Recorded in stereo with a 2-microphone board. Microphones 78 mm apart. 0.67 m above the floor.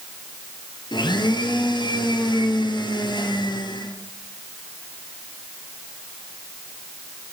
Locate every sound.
0.9 s a blender: 70° left (ahead or behind), 2 m